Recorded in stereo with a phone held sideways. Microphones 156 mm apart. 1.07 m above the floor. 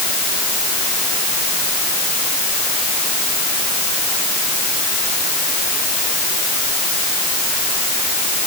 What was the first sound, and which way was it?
Only background noise.